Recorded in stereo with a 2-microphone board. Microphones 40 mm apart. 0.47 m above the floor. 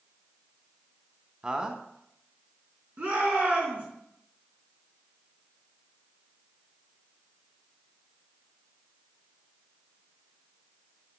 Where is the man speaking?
20° right (ahead or behind), 1.0 m.